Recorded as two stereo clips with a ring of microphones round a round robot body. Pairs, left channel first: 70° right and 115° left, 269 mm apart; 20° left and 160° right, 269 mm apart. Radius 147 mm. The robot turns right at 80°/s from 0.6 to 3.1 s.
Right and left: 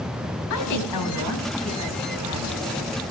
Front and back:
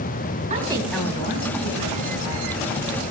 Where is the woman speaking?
90° right, 5 m; by 3.1 s 110° left, 5 m.